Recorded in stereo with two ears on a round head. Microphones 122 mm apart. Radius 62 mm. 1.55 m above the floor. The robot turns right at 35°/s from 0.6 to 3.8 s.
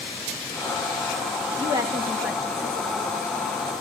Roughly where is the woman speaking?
Right.